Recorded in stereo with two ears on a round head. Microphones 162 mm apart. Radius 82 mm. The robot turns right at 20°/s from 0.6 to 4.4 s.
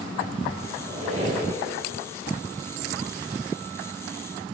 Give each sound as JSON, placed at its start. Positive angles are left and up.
{"t": 0.8, "sound": "a squeak", "side_deg": -35, "distance_m": 2.5}